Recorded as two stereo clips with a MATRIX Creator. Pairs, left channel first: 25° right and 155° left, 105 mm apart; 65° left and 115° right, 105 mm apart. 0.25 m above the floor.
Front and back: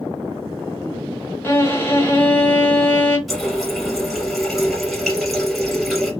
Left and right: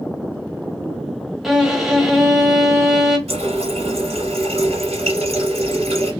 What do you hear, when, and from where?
1.4 s a violin: 25° right, 1.2 m
3.3 s a running tap: 115° right, 3 m